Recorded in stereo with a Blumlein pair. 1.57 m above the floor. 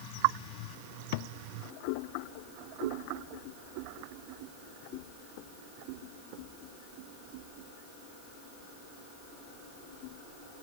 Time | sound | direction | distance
1.1 | a thud | 50° left | ?